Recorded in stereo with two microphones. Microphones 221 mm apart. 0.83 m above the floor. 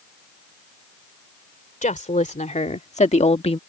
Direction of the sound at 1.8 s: 35° left (ahead or behind).